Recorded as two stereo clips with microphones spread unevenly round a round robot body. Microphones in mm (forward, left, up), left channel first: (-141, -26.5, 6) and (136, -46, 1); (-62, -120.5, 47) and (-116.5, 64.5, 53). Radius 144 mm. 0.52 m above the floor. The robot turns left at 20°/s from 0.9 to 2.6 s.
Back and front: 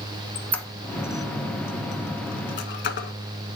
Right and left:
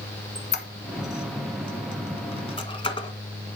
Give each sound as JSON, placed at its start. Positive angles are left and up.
{"t": 0.3, "sound": "a squeak", "azimuth_deg": -100, "distance_m": 1.2}